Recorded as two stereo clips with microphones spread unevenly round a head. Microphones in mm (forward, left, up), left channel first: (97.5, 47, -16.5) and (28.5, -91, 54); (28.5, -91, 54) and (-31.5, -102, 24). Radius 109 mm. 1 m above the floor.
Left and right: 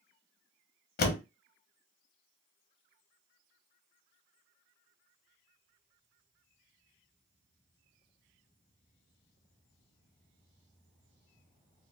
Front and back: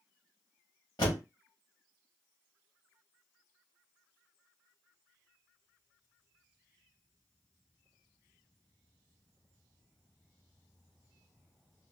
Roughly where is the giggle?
I don't hear a giggle.